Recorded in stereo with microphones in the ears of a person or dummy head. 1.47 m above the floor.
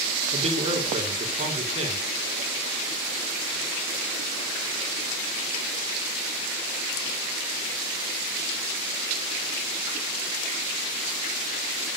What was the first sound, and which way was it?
A man speaking, 30° right (ahead or behind).